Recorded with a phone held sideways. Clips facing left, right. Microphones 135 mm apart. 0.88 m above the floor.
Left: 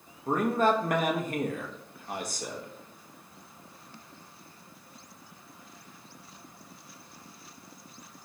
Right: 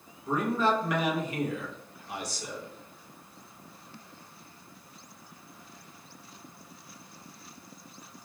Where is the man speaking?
55° left (ahead or behind), 0.7 m.